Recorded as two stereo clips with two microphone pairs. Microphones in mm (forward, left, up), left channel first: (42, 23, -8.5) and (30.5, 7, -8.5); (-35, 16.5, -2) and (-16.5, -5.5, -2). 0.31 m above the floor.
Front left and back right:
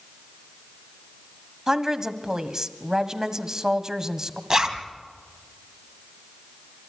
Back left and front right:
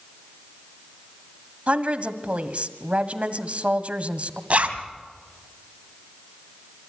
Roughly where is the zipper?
Right.